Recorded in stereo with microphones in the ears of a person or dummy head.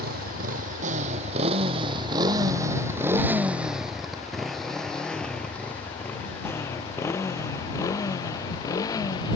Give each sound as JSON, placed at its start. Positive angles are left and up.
{"t": 0.0, "sound": "a motorcycle", "side_deg": -60}